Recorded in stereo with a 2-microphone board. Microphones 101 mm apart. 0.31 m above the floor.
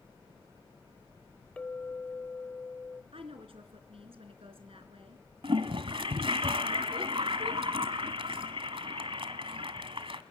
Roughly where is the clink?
Centre.